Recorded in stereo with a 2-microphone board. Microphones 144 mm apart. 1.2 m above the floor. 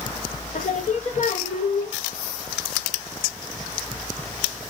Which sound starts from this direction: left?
Singing, at 0.5 s.